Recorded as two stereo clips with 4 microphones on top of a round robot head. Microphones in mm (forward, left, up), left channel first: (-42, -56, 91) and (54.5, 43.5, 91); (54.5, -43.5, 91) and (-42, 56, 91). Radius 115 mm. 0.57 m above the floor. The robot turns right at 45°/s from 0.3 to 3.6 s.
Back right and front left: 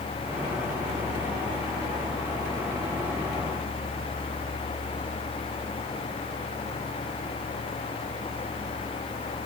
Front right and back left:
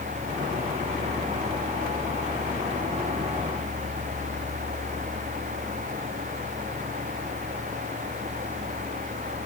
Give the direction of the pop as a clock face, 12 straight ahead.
No pop in this recording.